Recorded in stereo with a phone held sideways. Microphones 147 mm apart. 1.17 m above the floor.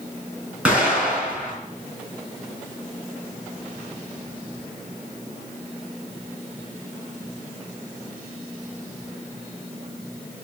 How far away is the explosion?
About 5 m.